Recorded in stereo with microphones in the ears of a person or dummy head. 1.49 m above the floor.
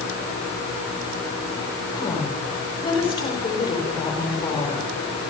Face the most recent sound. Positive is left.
turn(degrees=25)  # may be behind; listen again after turning